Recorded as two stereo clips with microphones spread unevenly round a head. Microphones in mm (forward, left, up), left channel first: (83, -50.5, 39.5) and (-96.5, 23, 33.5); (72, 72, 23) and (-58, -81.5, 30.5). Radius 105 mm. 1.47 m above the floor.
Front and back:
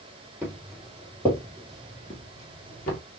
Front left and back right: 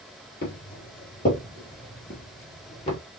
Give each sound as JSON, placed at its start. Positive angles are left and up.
{"t": 0.4, "sound": "footsteps", "azimuth_deg": 75, "distance_m": 1.9}